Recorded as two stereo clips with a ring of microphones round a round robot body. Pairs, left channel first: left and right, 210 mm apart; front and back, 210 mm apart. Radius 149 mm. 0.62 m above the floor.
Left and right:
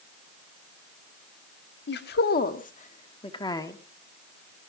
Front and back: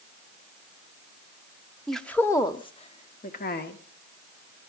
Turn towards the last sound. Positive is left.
turn(degrees=15)